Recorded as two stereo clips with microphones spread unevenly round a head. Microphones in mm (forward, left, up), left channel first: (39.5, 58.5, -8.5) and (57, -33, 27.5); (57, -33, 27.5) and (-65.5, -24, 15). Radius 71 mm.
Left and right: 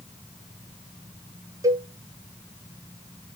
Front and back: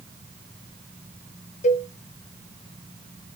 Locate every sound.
1.6 s a cowbell: 15° right, 1.2 m